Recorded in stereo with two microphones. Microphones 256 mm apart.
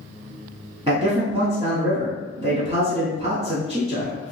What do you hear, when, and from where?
0.9 s a man speaking: 25° right (ahead or behind), 1.1 m